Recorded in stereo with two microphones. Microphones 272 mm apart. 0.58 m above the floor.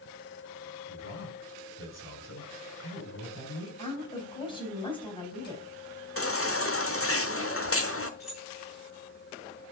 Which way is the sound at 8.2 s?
Centre (ahead or behind).